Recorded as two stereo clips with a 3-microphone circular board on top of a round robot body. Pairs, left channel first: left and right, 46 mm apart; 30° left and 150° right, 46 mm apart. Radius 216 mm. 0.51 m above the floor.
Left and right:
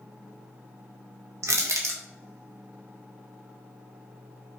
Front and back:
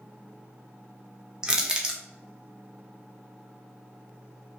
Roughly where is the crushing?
Right.